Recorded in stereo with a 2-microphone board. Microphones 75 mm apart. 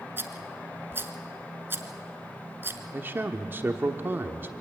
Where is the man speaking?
30° right (ahead or behind), 1.1 m.